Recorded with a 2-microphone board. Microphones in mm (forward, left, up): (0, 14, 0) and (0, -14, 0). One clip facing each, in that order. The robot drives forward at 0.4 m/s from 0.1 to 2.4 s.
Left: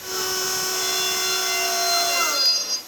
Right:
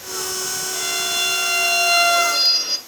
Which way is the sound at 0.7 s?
25° right (ahead or behind).